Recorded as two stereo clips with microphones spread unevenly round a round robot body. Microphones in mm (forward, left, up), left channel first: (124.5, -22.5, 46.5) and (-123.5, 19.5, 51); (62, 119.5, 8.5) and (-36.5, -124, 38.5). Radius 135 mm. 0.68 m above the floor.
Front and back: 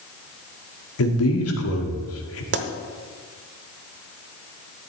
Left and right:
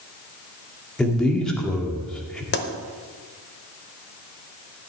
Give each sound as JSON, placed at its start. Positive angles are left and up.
{"t": 1.0, "sound": "a man speaking", "azimuth_deg": -15, "distance_m": 1.9}
{"t": 2.5, "sound": "a pop", "azimuth_deg": 125, "distance_m": 0.9}